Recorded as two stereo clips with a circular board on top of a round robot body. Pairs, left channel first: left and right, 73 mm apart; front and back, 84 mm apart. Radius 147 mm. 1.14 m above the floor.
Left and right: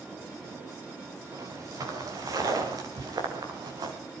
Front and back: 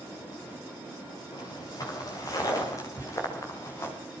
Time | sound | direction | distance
1.3 | footsteps | 45° right | 7 m